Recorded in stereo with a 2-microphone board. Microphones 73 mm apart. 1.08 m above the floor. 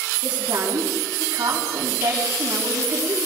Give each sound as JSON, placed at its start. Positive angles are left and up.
{"t": 0.2, "sound": "a woman speaking", "side_deg": -85, "distance_m": 7.0}